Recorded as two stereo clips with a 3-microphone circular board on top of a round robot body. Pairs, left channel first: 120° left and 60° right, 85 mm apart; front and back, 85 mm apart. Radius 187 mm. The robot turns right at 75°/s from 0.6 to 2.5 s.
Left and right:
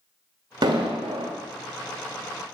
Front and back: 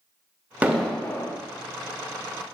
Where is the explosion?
105° right, 1.0 m; by 1.3 s 50° right, 1.0 m.